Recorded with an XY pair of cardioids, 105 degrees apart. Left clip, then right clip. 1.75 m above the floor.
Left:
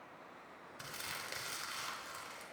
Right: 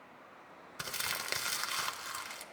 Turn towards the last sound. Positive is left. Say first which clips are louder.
# right 7 dB
turn(degrees=-60)